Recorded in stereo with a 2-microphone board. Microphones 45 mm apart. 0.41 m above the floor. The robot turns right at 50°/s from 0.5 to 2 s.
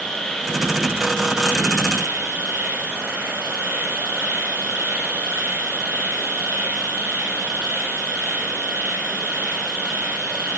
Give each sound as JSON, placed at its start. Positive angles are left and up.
{"t": 0.0, "sound": "an insect", "azimuth_deg": 175, "distance_m": 9.0}